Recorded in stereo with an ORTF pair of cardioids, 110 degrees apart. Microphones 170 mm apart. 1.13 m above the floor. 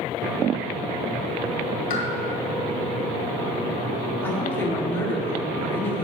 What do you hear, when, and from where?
1.9 s a pop: 60° left, 2.5 m
4.2 s a woman speaking: 15° left, 2.5 m